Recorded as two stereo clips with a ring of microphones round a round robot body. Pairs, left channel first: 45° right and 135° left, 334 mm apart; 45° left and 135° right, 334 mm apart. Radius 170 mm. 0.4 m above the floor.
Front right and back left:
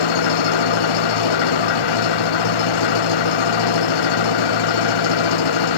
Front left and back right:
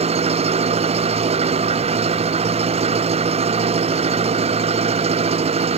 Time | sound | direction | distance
0.0 | an engine running | 60° right | ?